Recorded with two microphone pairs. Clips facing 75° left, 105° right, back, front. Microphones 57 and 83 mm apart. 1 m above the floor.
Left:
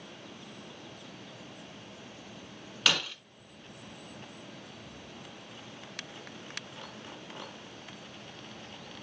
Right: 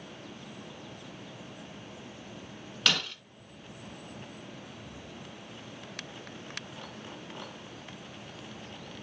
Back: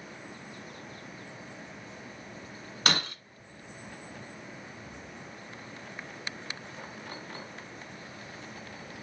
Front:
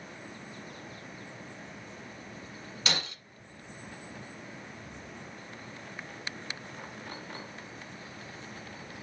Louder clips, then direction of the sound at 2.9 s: Even, back 5 dB; 160° left.